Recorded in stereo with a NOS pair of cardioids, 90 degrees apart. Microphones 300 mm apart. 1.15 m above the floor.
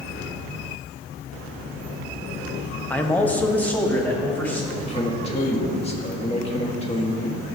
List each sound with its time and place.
2.9 s a man speaking: 5° left, 0.7 m
4.7 s a man speaking: 20° left, 1.7 m